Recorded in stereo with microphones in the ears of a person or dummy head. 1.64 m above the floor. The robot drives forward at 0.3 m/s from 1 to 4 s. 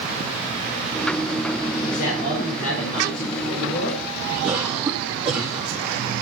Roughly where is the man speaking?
Left.